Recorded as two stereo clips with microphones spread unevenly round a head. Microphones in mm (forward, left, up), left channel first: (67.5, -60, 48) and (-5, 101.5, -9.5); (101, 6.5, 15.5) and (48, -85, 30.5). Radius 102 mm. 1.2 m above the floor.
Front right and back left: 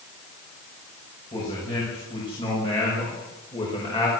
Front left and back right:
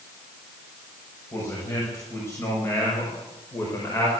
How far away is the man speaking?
About 8 m.